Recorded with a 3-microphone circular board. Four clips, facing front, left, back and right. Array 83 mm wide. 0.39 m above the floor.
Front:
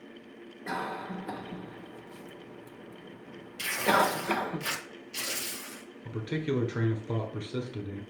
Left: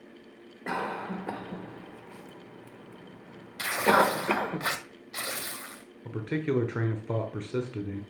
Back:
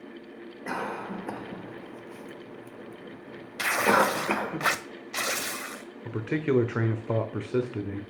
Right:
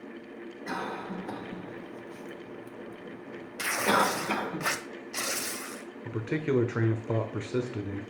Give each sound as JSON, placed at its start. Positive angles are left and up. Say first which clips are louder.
{"t": 0.7, "sound": "a cough", "louder": "left 3 dB, back 2 dB", "azimuth_deg": 125, "distance_m": 1.6}
{"t": 3.6, "sound": "tearing paper", "louder": "left 3 dB, back 3 dB", "azimuth_deg": 180, "distance_m": 0.9}
{"t": 6.0, "sound": "a man speaking", "louder": "even, back 5 dB", "azimuth_deg": -165, "distance_m": 1.0}